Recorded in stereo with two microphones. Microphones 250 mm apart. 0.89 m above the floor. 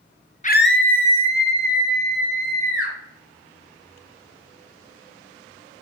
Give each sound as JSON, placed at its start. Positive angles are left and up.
{"t": 0.4, "sound": "a scream", "side_deg": 30, "distance_m": 0.7}